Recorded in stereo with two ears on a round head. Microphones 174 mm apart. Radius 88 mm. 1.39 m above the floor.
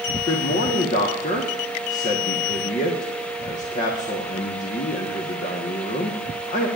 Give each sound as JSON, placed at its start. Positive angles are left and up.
{"t": 0.3, "sound": "a man speaking", "side_deg": 40, "distance_m": 1.3}